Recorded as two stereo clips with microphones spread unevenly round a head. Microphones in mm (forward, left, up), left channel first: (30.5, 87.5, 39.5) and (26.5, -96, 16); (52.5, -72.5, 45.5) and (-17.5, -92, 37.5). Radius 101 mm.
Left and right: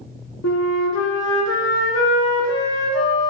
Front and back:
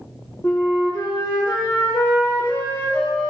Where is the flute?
85° left, 1.0 m.